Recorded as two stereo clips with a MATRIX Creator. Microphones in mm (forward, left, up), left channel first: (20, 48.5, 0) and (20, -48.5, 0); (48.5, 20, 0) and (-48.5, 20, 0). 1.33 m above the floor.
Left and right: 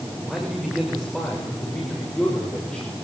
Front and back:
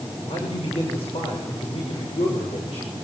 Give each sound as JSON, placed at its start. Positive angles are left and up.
{"t": 0.2, "sound": "a man speaking", "azimuth_deg": -5, "distance_m": 7.0}